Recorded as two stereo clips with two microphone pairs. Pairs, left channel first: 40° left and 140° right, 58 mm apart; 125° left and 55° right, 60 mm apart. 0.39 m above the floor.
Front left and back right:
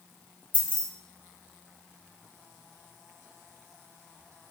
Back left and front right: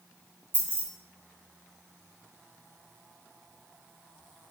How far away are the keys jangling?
About 1.0 m.